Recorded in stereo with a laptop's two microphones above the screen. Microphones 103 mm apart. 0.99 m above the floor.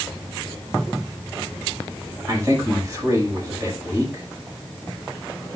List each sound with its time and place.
2.3 s a man speaking: 35° right (ahead or behind), 5 m